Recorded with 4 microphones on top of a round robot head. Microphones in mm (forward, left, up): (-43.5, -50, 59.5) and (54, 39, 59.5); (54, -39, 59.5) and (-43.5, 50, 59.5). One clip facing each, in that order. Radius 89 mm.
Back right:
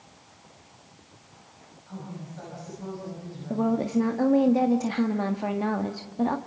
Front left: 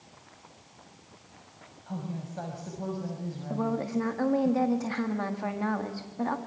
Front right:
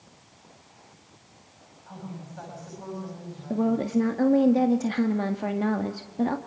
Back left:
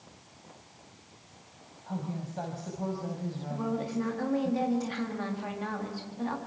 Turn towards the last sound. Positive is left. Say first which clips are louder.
# back right 5 dB, front right 9 dB
turn(degrees=-70)